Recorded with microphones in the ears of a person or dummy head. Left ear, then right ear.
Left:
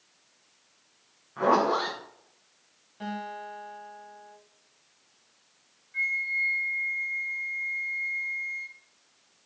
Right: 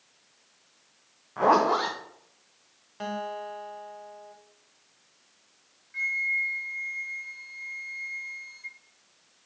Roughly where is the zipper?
Centre.